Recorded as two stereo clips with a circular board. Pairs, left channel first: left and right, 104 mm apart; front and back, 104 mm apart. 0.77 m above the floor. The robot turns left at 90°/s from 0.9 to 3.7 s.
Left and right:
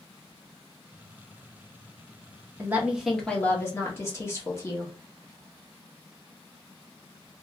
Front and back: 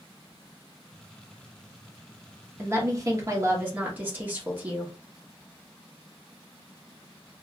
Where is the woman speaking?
135° right, 0.9 m; by 4.9 s 125° left, 0.9 m.